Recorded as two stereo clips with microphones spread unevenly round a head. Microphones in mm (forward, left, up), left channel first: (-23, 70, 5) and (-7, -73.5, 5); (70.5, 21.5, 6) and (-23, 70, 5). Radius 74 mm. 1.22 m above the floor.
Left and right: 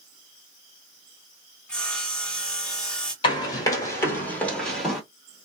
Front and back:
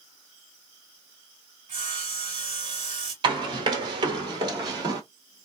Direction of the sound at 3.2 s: 140° left.